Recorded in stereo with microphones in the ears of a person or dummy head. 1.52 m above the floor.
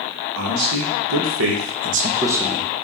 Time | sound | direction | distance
0.3 | a man speaking | 85° right | 1.1 m